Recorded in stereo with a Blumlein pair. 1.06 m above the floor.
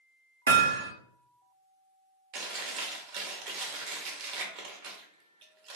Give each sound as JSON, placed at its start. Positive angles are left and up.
{"t": 0.5, "sound": "hammering", "azimuth_deg": -70, "distance_m": 0.6}
{"t": 2.3, "sound": "chewing", "azimuth_deg": -40, "distance_m": 0.8}